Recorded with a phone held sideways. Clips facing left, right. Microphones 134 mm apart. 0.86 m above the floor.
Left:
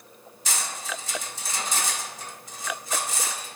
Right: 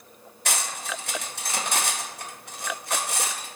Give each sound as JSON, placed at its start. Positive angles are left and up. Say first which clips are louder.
{"t": 0.5, "sound": "cutlery clinking", "louder": "right 2 dB", "side_deg": -65, "distance_m": 0.7}